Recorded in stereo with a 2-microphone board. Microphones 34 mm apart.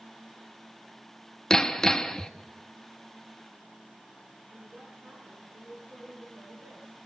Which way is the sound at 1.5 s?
15° left (ahead or behind).